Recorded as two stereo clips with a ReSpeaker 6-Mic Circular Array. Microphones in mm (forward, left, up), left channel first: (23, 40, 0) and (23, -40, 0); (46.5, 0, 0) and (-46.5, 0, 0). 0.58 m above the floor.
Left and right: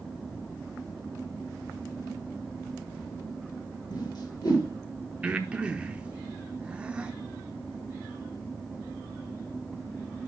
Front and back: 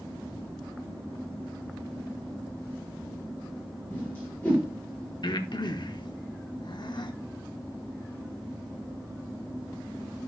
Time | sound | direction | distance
3.9 | a whoosh | 65° left | 5 m
5.2 | breathing | 15° right | 0.8 m